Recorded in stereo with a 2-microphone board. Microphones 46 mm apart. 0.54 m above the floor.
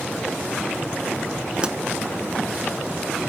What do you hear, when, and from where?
1.6 s a pop: 25° right (ahead or behind), 1.1 m